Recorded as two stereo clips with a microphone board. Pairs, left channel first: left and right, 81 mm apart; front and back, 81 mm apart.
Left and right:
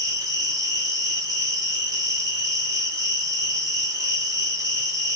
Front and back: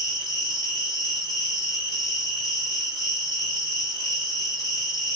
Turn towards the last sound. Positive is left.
turn(degrees=-40)